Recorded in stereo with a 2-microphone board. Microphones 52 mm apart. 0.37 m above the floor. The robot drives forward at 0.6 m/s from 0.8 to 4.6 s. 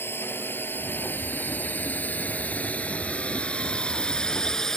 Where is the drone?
50° left (ahead or behind); by 4.8 s 10° left (ahead or behind).